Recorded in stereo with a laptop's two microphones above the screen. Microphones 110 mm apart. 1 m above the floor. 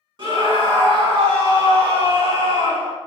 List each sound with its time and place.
0.2 s a scream: 50° right (ahead or behind), 1.0 m